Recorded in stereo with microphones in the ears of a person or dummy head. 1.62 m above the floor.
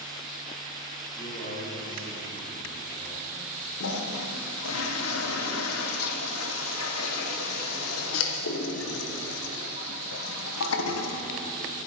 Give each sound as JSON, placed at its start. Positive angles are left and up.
{"t": 1.2, "sound": "a man speaking", "side_deg": 45, "distance_m": 5.5}
{"t": 3.8, "sound": "a toilet flushing", "side_deg": 85, "distance_m": 1.3}